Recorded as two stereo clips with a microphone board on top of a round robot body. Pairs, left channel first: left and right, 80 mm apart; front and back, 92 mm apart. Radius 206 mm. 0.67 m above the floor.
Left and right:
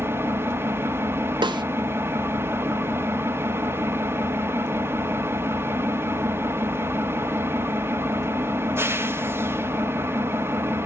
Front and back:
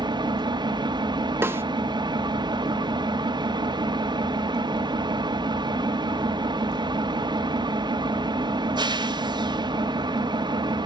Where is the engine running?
150° right, 1.0 m.